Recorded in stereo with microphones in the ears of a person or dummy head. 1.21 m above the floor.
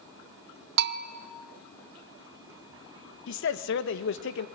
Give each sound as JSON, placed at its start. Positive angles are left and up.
{"t": 0.8, "sound": "a bell", "side_deg": -60, "distance_m": 1.8}
{"t": 3.3, "sound": "a man speaking", "side_deg": 65, "distance_m": 1.5}